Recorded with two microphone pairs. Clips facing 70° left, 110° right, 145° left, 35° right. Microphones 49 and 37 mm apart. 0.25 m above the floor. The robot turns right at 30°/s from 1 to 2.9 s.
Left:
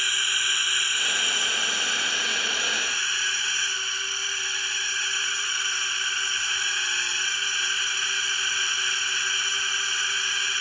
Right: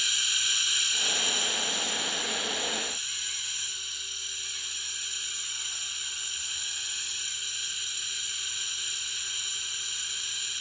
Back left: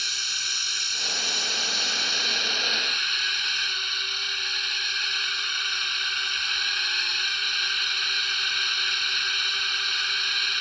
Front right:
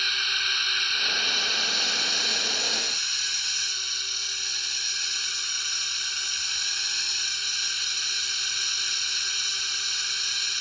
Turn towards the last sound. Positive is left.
turn(degrees=80)